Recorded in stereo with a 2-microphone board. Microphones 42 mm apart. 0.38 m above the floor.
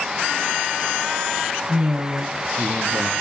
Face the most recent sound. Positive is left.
turn(degrees=-45)  # may be behind; listen again after turning